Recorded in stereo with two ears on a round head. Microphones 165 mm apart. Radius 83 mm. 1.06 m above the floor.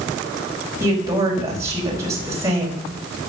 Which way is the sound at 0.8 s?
15° right (ahead or behind).